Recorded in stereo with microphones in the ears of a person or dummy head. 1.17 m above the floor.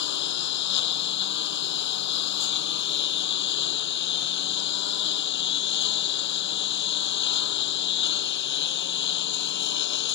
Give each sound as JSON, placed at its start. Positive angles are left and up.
{"t": 0.0, "sound": "a lawn mower", "side_deg": 55}